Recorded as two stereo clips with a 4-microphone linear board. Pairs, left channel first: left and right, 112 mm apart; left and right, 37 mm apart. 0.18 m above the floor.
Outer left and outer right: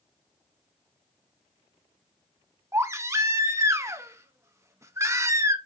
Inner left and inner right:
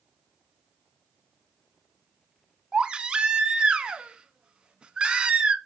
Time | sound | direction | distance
2.7 | a baby crying | 25° right (ahead or behind) | 0.6 m